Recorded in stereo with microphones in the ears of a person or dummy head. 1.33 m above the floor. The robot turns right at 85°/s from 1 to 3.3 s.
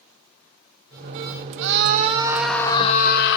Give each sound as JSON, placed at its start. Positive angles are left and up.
{"t": 1.6, "sound": "a scream", "azimuth_deg": -75, "distance_m": 0.6}